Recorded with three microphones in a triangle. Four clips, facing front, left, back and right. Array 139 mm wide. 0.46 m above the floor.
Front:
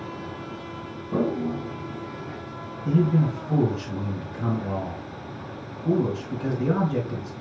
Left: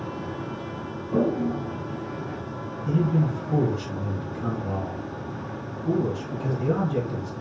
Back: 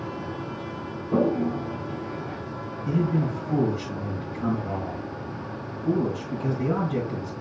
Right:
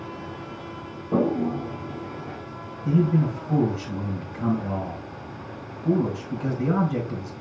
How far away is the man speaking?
About 5 m.